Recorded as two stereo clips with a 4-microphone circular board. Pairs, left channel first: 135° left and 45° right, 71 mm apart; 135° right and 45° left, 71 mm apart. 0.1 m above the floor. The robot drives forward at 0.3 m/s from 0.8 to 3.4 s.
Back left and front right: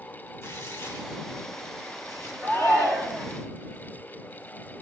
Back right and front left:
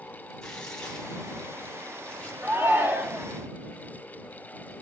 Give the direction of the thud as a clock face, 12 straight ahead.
I don't hear a thud.